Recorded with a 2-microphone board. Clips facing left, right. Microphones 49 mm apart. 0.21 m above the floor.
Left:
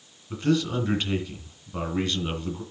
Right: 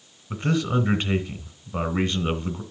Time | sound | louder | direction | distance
0.3 | a man speaking | even | 25° right (ahead or behind) | 2 m